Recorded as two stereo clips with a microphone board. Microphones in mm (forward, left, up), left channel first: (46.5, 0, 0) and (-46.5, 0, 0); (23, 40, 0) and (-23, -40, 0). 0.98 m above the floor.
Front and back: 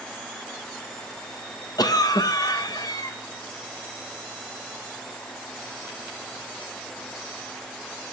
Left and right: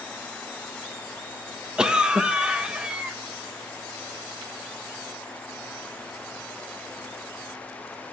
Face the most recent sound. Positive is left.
turn(degrees=-40)